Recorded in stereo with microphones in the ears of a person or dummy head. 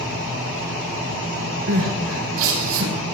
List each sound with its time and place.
1.7 s crying: 85° right, 6 m